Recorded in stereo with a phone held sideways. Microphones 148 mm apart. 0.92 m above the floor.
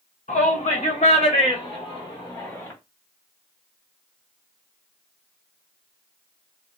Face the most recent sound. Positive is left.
turn(degrees=20)  # may be behind; listen again after turning